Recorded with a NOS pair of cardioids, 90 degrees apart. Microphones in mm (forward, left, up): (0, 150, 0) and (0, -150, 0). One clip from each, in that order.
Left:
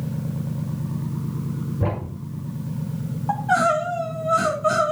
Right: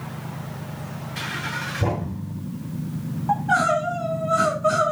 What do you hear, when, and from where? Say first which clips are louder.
1.8 s a thud: right 1 dB; 15° left, 5 m
3.3 s crying: even; 5° left, 3.5 m